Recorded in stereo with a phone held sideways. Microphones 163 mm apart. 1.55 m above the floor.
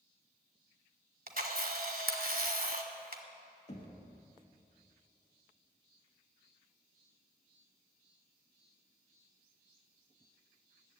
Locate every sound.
1.3 s a camera shutter: 60° right (ahead or behind), 1.2 m
3.7 s knocking: 45° left (ahead or behind), 1.8 m